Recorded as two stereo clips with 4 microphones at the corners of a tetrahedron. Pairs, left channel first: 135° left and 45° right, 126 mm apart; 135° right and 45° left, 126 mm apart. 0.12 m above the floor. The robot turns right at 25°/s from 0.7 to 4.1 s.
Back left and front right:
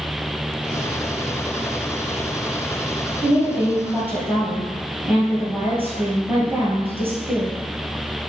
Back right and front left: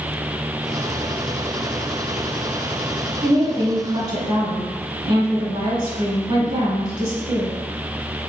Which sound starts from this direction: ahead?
A woman speaking, at 3.2 s.